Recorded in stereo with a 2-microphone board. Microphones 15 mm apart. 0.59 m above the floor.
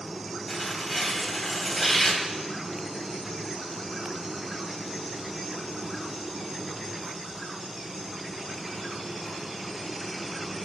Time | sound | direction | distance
0.5 | tearing paper | 5° left (ahead or behind) | 3 m